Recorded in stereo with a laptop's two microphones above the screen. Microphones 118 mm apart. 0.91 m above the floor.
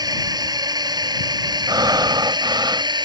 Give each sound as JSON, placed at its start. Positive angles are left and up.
{"t": 0.0, "sound": "a drone", "side_deg": -35}
{"t": 1.7, "sound": "breathing", "side_deg": -35}